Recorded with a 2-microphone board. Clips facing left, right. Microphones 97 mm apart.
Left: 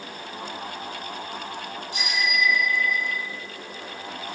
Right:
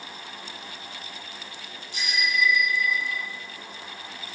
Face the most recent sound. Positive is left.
turn(degrees=25)  # may be behind; listen again after turning